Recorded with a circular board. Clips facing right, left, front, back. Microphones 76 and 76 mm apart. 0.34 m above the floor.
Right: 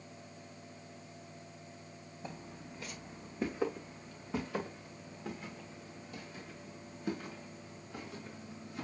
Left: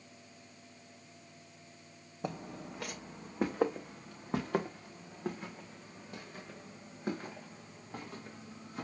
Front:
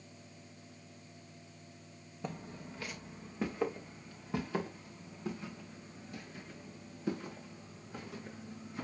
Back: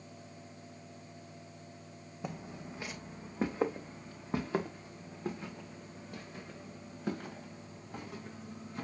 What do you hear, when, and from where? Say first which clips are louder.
2.2 s footsteps: left 7 dB, back 1 dB; 95° left, 0.9 m; by 8.8 s 140° left, 4.5 m